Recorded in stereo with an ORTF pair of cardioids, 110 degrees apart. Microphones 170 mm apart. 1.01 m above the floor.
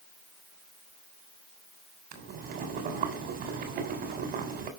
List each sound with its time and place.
2.1 s boiling: 70° right, 3.5 m